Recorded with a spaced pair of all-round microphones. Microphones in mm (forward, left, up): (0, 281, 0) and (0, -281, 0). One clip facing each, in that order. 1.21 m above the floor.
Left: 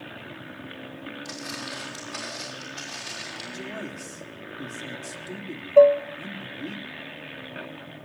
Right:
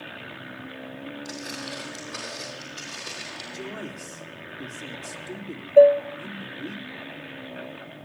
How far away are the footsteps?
About 5 m.